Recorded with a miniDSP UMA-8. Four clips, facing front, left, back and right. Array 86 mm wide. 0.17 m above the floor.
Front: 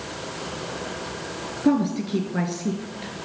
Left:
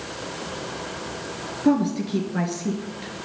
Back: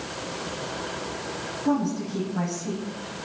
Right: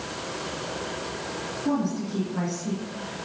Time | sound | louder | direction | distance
1.6 | a woman speaking | left 6 dB, front 4 dB | 35° left | 2.5 m